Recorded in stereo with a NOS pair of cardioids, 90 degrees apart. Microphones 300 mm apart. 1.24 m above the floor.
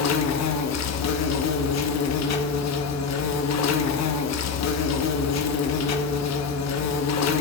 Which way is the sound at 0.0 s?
60° left.